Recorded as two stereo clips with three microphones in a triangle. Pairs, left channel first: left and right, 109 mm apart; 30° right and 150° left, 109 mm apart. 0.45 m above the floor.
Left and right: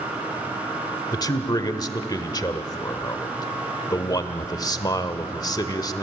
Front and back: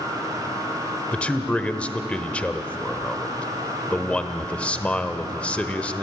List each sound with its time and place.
1.1 s a man speaking: 45° left, 1.3 m